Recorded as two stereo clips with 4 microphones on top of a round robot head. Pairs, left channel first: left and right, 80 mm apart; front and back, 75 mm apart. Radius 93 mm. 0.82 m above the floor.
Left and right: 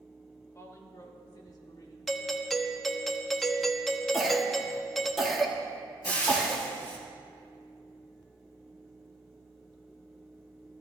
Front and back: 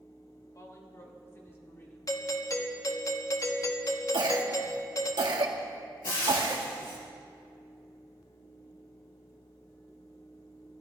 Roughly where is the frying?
Ahead left.